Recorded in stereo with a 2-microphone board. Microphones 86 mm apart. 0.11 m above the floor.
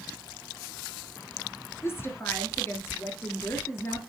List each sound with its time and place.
1.8 s a woman speaking: 30° left (ahead or behind), 1.6 m